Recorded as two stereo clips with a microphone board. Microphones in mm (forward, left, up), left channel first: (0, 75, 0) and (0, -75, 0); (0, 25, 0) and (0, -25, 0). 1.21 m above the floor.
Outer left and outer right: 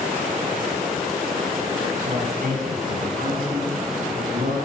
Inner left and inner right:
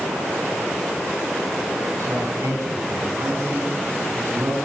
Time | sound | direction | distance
2.0 | a man speaking | 65° right (ahead or behind) | 8 m